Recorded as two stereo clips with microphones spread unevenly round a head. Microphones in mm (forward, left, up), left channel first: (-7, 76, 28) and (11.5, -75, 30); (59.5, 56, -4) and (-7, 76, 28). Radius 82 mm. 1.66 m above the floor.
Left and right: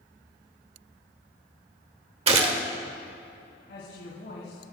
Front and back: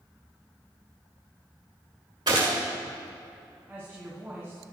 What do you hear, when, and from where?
2.3 s a gunshot: 135° right, 1.2 m
3.7 s a woman speaking: 100° left, 4 m